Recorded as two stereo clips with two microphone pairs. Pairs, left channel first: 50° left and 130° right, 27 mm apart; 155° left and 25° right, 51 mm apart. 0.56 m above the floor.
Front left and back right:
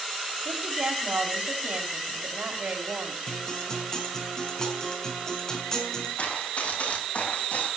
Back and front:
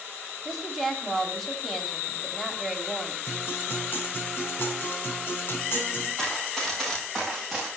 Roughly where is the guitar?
Left.